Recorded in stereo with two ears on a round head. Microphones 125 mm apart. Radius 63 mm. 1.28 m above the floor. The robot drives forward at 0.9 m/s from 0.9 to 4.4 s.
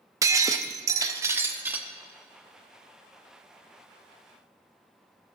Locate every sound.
0.2 s breaking glass: 20° right (ahead or behind), 0.6 m; by 1.9 s 10° right (ahead or behind), 1.0 m